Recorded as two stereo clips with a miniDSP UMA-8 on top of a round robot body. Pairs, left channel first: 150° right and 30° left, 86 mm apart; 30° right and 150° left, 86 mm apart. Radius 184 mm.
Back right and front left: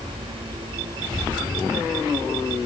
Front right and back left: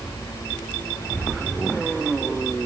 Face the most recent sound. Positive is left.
No sound to turn to.